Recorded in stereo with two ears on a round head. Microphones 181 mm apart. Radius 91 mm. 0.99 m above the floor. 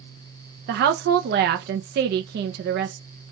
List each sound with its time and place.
0.7 s a woman speaking: 50° right (ahead or behind), 0.6 m